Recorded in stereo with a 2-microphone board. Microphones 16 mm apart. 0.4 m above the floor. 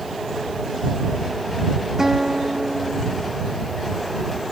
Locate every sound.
2.0 s a guitar: 35° right (ahead or behind)